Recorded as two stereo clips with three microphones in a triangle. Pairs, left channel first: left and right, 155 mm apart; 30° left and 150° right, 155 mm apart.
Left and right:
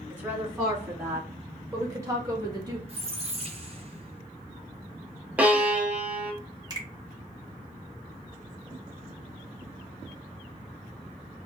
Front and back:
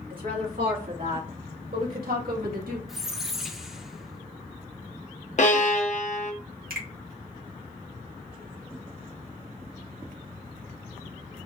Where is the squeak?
65° right, 0.8 m.